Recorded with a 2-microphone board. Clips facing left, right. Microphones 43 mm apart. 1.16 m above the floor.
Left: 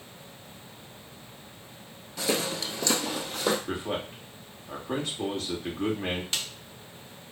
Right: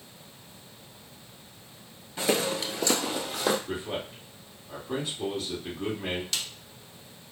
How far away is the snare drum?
About 0.8 m.